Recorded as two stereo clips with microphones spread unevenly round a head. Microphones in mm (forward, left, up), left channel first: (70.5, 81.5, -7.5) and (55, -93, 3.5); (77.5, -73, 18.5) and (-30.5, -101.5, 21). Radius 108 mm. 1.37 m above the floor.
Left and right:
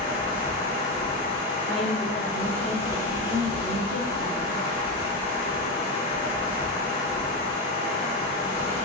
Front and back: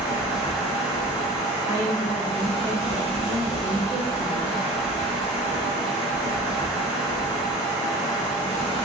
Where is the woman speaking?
100° right, 1.6 m.